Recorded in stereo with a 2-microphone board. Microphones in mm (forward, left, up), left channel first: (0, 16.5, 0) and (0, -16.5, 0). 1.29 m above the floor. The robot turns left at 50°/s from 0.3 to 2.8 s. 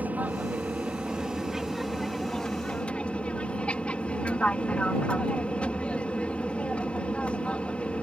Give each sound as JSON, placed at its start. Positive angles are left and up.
{"t": 0.0, "sound": "an aircraft", "azimuth_deg": -105}